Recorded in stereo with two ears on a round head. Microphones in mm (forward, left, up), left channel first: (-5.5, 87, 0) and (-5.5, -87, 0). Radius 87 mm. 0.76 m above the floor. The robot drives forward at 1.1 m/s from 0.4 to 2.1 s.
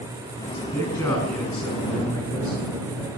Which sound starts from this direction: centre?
A man speaking, at 0.5 s.